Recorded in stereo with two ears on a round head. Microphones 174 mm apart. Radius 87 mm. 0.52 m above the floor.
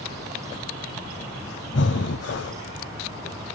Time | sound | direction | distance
1.7 | breathing | 65° left (ahead or behind) | 0.6 m